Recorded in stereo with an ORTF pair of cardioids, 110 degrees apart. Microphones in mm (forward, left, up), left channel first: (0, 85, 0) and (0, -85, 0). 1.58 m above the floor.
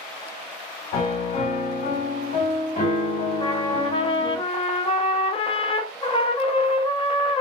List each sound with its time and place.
0.9 s a piano: 60° left, 1.5 m
3.4 s a trumpet: 35° left, 0.5 m